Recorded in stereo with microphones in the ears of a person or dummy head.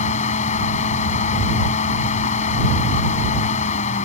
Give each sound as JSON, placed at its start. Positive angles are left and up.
{"t": 0.0, "sound": "a fan", "side_deg": 40}